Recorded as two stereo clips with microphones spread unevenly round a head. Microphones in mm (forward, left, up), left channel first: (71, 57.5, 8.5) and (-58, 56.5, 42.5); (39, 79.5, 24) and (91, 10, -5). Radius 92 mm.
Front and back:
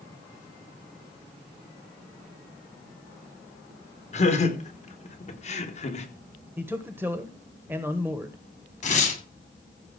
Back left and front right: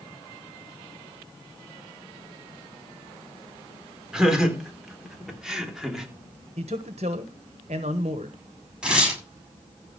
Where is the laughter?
35° left, 4.5 m; by 6.1 s 40° left, 3.5 m.